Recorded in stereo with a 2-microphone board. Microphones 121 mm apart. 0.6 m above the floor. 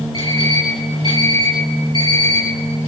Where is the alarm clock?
40° left (ahead or behind), 9 m.